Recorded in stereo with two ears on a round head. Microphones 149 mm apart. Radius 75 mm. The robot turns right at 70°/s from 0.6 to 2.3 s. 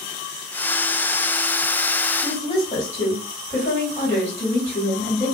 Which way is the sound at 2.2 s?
40° left (ahead or behind).